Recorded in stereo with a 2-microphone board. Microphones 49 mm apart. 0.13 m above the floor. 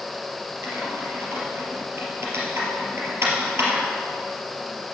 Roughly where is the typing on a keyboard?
Right.